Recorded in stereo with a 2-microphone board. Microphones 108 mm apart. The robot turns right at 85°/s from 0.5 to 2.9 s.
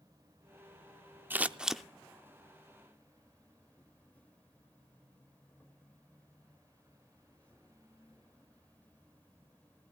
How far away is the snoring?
I don't hear snoring.